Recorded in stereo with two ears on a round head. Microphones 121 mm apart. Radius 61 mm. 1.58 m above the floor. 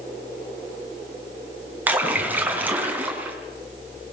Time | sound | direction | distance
1.9 | a splash | 15° right (ahead or behind) | 4 m